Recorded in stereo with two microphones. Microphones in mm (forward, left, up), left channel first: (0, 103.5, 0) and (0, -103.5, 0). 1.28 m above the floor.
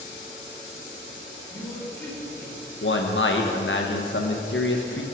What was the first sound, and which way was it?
A woman speaking, 20° left (ahead or behind).